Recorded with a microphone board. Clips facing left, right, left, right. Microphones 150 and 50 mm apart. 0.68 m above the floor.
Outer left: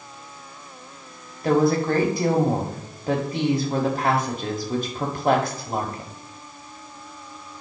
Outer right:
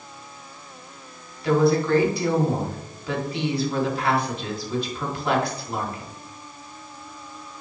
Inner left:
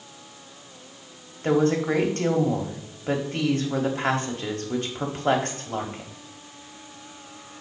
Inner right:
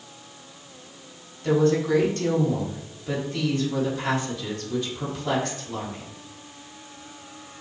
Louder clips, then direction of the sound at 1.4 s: Even, even; 45° left (ahead or behind).